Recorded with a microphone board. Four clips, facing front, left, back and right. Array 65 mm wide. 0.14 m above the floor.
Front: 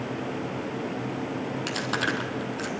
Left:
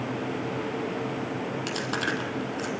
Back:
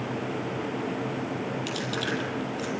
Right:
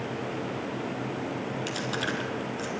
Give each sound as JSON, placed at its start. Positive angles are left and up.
{"t": 1.7, "sound": "chewing", "azimuth_deg": 30, "distance_m": 3.0}